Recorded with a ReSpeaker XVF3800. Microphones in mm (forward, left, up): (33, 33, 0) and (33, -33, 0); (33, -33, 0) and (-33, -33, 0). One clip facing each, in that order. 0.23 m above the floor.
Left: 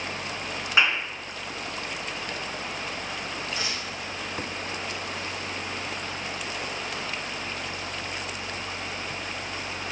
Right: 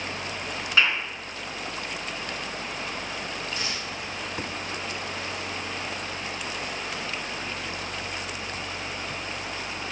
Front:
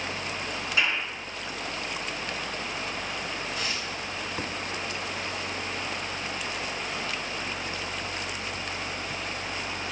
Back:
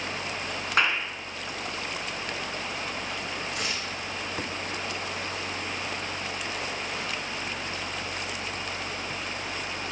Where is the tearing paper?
160° left, 4 m.